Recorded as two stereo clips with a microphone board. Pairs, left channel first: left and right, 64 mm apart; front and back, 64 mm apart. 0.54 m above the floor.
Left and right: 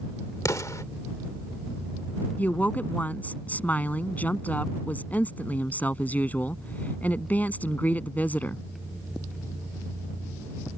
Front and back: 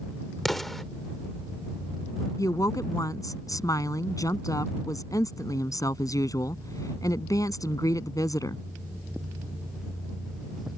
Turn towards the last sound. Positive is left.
turn(degrees=25)